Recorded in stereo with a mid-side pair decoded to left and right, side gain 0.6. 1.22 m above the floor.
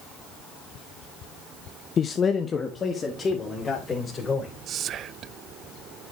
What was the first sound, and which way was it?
A man speaking, 40° left.